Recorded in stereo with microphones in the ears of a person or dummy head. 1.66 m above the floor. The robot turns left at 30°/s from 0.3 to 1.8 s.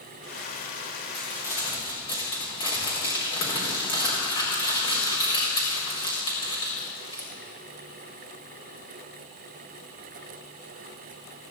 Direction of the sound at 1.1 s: 10° left (ahead or behind).